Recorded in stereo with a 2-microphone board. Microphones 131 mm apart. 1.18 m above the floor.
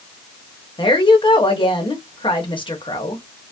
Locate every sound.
0.8 s a woman speaking: 40° left (ahead or behind), 1.2 m